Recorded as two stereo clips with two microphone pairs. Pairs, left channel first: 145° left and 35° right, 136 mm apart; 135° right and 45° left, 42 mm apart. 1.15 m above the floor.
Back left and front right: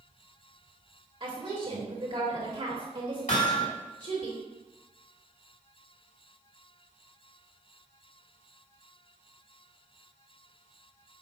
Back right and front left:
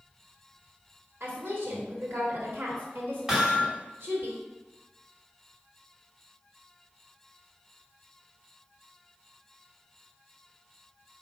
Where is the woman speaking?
20° left, 2.5 m.